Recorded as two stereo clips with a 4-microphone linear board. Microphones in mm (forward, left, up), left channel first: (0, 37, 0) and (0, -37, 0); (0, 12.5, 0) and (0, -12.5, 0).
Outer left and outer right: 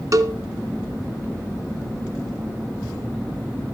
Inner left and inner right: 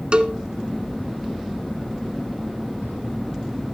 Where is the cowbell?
50° right (ahead or behind), 1.0 m.